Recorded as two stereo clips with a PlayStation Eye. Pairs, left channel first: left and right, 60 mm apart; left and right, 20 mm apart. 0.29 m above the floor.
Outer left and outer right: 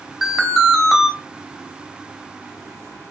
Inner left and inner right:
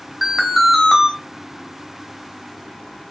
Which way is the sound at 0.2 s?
5° right (ahead or behind).